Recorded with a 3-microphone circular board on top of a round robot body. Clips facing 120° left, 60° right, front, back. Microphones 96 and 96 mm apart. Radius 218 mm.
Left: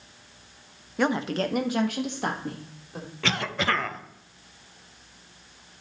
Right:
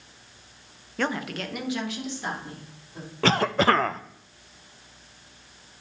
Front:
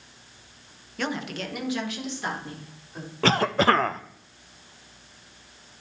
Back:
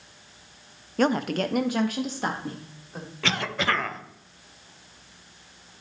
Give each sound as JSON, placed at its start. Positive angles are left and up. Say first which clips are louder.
{"t": 1.0, "sound": "a woman speaking", "louder": "left 4 dB, back 8 dB", "azimuth_deg": -165, "distance_m": 0.8}
{"t": 3.2, "sound": "a cough", "louder": "right 7 dB, front 7 dB", "azimuth_deg": -30, "distance_m": 0.7}